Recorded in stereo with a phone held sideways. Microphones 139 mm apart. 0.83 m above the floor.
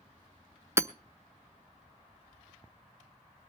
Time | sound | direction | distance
0.8 | hammering | 20° right (ahead or behind) | 0.6 m